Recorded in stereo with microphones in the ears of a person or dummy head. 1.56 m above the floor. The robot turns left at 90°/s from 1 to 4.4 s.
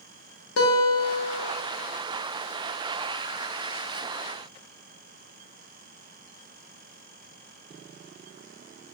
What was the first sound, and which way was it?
A guitar, 85° left.